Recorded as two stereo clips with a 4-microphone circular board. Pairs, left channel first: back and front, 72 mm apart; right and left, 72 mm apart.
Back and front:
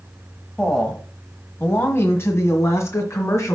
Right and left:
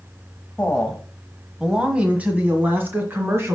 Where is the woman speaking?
120° right, 1.2 m; by 3.5 s 140° left, 2.5 m.